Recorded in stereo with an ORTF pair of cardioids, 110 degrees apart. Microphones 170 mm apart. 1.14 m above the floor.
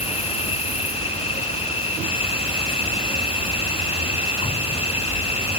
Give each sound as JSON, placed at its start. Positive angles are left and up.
{"t": 0.0, "sound": "an insect", "azimuth_deg": 35}